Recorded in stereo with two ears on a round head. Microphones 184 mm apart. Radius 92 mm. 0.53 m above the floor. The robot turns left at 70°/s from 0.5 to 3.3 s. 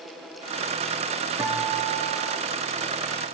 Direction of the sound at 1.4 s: 10° right.